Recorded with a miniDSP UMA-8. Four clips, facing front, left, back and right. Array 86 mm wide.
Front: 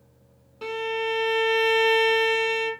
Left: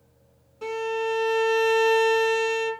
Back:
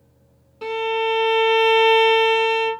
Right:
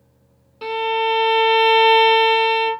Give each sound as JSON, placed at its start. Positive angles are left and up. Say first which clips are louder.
{"t": 0.6, "sound": "a violin", "louder": "right 7 dB, back 6 dB", "azimuth_deg": -95, "distance_m": 0.6}